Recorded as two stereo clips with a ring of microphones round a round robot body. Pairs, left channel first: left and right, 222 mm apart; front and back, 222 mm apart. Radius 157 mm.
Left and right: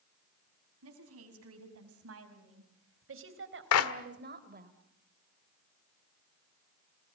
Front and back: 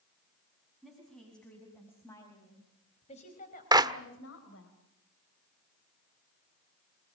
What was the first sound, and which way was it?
A woman speaking, 90° right.